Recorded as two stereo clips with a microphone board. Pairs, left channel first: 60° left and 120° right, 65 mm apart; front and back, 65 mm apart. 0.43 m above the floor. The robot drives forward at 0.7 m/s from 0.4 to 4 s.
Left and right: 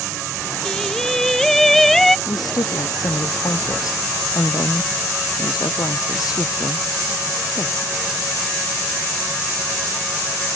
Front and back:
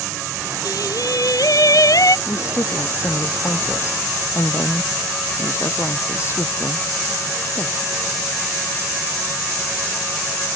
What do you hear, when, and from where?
0.7 s singing: 20° right; by 2.2 s 25° right
2.3 s a woman speaking: 45° left